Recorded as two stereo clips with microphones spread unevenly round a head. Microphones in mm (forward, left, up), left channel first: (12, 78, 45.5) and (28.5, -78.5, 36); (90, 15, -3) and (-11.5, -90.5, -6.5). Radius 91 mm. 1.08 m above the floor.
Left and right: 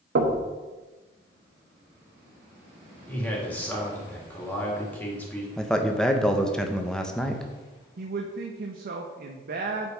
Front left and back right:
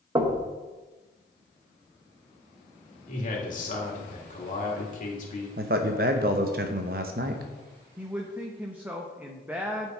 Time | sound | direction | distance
0.1 | knocking | 70° right | 1.1 m
3.1 | a man speaking | 15° left | 2.5 m
5.6 | a man speaking | 175° right | 0.7 m
8.0 | a man speaking | 55° right | 0.8 m